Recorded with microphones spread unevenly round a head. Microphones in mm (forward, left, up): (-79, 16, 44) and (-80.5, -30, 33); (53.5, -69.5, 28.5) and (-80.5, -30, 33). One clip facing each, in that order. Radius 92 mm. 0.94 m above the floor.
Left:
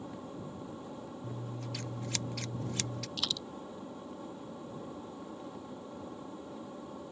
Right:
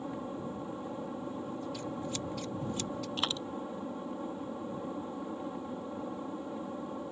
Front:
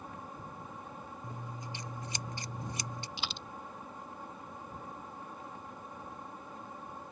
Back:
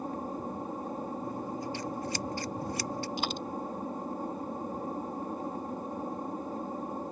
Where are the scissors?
55° left.